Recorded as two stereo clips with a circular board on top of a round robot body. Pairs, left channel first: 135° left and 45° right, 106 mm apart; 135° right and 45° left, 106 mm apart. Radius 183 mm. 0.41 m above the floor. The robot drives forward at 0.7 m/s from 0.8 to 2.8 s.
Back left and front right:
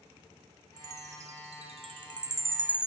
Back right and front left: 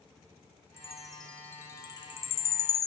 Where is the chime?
40° right, 1.1 m; by 2.9 s 125° right, 0.9 m.